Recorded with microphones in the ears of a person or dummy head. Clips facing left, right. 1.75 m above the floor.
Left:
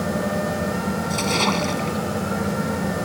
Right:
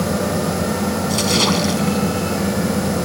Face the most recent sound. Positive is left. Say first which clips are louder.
# right 4 dB
turn(degrees=-15)  # may be behind; listen again after turning